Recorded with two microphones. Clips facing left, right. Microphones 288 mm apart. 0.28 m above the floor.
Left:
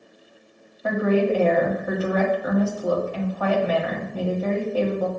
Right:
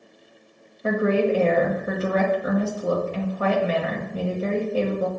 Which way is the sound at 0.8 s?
30° right (ahead or behind).